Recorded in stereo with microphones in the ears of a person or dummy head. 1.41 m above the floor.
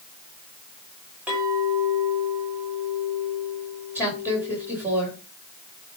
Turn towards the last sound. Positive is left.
turn(degrees=-10)  # may be behind; listen again after turning